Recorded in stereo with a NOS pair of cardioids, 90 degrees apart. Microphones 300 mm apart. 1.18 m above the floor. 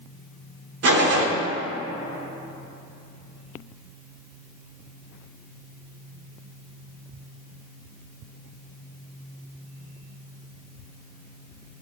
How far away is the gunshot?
About 2.5 m.